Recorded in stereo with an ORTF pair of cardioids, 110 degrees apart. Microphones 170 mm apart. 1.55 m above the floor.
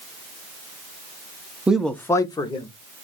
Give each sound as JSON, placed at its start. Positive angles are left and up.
{"t": 1.7, "sound": "a man speaking", "azimuth_deg": -10, "distance_m": 0.6}